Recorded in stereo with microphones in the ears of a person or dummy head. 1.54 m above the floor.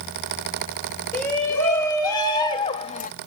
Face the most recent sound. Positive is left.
turn(degrees=45)  # may be behind; listen again after turning